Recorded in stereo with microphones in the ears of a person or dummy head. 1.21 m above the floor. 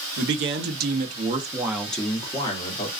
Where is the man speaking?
60° right (ahead or behind), 0.9 m; by 2.9 s 30° left (ahead or behind), 1.1 m.